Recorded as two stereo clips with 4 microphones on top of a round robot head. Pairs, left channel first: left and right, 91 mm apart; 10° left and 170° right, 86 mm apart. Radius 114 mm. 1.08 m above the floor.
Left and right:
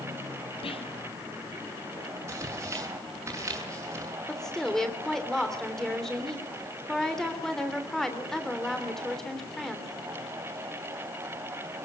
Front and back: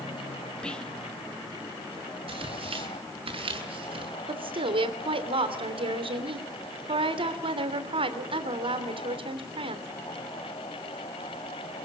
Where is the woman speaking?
175° left, 3 m.